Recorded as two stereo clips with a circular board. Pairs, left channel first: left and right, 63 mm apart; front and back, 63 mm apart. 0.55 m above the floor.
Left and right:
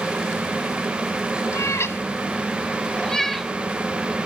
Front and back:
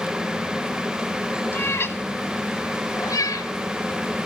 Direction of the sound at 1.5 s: 55° left.